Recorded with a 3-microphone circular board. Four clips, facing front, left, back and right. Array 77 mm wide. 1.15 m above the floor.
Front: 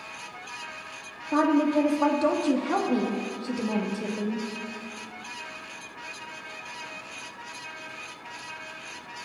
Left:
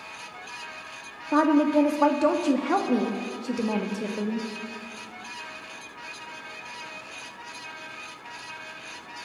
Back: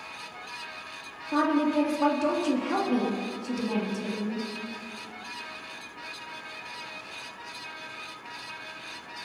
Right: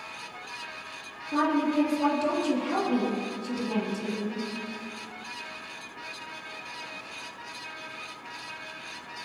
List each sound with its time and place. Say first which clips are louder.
1.3 s a woman speaking: left 5 dB, front 2 dB; 70° left, 1.6 m